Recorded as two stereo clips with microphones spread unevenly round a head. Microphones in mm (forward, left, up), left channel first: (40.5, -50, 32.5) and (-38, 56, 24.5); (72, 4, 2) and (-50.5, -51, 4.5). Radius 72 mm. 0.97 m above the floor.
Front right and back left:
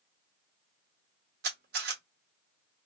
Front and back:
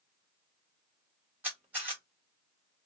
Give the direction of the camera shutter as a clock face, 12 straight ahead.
8 o'clock.